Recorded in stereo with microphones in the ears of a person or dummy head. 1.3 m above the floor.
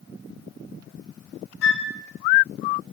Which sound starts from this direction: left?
A flute, at 1.6 s.